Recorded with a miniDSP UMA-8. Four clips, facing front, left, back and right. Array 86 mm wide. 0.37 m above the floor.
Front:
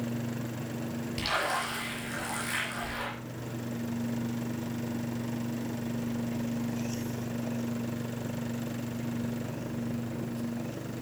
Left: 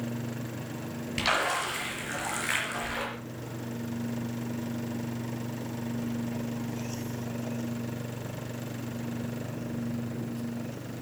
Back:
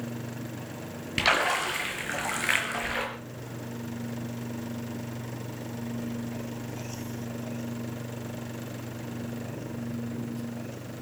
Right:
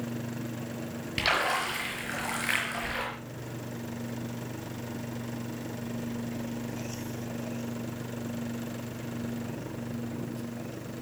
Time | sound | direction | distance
1.2 | a splash | 170° right | 5 m